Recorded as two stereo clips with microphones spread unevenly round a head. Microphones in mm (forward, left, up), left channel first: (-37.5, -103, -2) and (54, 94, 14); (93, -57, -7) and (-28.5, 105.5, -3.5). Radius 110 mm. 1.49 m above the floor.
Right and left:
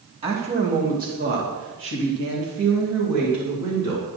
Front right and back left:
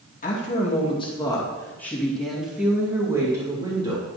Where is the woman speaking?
Straight ahead, 2.5 m; by 4.0 s 60° left, 3.5 m.